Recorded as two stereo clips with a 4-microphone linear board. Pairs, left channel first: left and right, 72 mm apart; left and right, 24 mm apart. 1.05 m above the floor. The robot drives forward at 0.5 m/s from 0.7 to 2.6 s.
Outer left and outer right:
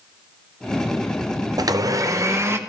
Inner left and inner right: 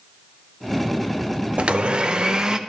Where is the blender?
60° right (ahead or behind), 0.5 m; by 2.6 s 35° right (ahead or behind), 0.8 m.